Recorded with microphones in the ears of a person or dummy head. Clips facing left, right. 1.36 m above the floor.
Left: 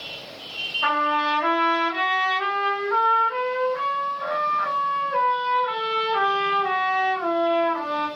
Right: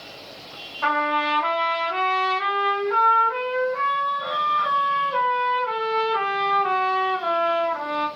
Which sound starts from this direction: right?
A trumpet, at 0.8 s.